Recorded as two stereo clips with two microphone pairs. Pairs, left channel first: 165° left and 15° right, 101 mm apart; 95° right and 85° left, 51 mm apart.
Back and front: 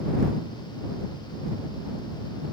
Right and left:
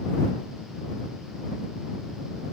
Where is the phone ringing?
No phone ringing in this recording.